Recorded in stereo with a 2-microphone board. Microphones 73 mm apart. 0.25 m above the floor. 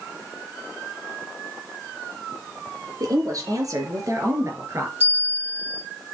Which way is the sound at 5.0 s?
25° right (ahead or behind).